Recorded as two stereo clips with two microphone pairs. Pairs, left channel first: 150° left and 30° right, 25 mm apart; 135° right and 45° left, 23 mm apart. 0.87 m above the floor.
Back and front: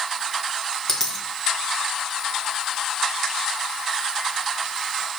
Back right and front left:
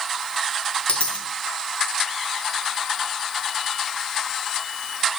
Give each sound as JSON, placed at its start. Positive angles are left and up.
{"t": 0.9, "sound": "a dropped coin", "azimuth_deg": -135, "distance_m": 2.0}